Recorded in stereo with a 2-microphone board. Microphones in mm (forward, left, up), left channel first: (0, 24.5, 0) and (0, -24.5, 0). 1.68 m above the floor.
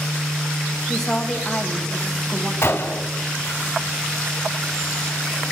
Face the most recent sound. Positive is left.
turn(degrees=60)  # may be behind; listen again after turning